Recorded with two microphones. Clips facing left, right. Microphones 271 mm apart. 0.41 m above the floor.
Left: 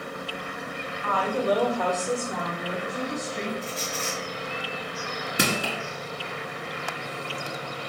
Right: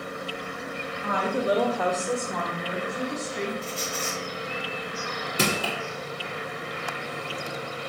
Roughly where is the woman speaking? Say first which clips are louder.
Even; centre.